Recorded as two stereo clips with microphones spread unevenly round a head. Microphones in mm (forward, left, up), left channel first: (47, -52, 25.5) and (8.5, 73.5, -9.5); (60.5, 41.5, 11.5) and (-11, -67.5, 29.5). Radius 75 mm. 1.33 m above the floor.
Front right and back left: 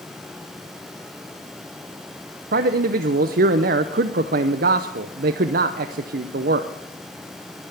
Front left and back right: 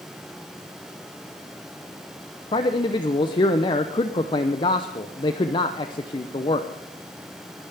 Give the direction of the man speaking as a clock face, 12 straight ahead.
8 o'clock.